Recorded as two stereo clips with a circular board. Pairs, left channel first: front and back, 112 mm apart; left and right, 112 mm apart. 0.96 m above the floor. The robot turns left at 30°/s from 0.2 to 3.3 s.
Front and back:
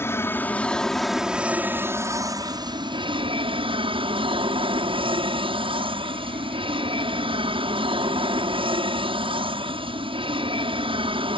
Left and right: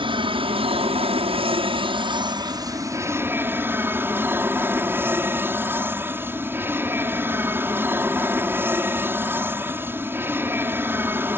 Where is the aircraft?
65° right; by 11.4 s 155° right.